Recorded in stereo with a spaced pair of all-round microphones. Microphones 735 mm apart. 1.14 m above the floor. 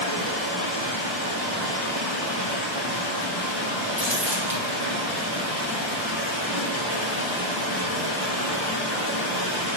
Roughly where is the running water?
Centre.